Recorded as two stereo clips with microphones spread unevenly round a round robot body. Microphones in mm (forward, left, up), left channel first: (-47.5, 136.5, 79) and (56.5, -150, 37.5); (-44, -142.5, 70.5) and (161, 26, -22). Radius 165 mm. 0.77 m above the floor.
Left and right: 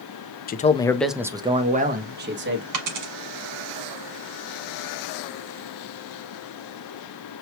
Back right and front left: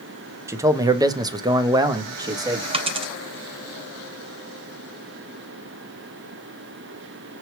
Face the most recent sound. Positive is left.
turn(degrees=-40)